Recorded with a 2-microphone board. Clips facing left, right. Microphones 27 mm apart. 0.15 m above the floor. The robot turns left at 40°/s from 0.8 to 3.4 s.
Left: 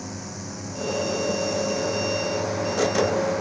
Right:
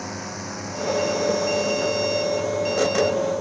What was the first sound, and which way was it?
A drone, 25° right (ahead or behind).